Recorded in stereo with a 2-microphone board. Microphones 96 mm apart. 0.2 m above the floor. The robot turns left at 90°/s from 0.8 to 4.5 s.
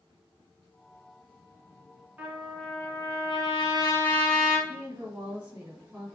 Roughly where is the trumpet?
Behind.